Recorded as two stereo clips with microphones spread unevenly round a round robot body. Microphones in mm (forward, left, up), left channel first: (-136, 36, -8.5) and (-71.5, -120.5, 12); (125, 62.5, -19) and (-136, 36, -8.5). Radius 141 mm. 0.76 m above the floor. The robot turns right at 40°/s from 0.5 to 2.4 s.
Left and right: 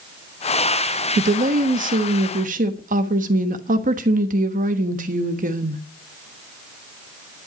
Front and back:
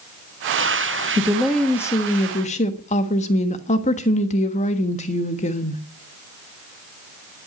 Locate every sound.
1.2 s a woman speaking: 95° right, 1.2 m; by 5.8 s 45° right, 1.2 m